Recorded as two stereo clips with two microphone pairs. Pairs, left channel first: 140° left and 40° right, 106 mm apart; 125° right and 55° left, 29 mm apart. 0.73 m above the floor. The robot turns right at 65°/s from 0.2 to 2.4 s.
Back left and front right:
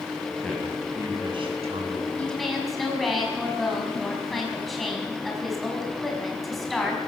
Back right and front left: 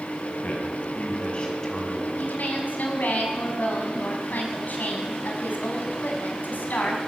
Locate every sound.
0.4 s a man speaking: 135° right, 6 m; by 2.1 s 30° right, 6 m
2.2 s a woman speaking: 145° right, 6 m; by 7.0 s 130° right, 6 m